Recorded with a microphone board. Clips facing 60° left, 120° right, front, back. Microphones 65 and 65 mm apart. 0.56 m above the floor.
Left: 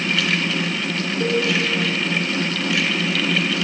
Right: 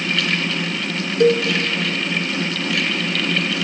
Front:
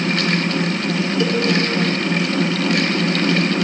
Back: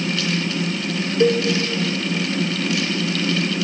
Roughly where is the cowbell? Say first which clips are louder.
Right 7 dB, back 6 dB; behind right.